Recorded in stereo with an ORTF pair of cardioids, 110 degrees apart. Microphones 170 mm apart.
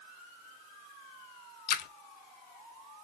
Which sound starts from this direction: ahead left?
A splash, at 1.7 s.